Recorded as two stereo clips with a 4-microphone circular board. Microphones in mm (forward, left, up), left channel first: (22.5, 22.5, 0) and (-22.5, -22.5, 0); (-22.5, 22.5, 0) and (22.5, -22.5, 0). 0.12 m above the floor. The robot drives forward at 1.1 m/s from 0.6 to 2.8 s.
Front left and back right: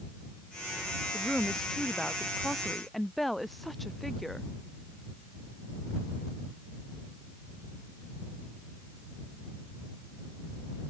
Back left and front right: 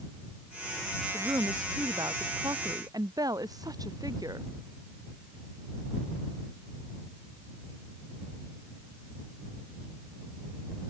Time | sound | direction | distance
1.1 | a woman speaking | 40° right | ?